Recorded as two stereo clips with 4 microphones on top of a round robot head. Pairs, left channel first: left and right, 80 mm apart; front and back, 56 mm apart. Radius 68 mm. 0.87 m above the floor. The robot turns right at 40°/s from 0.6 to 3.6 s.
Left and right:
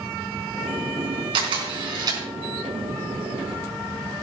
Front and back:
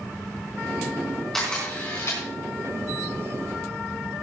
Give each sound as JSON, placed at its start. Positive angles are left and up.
{"t": 1.3, "sound": "a camera shutter", "azimuth_deg": -85, "distance_m": 4.0}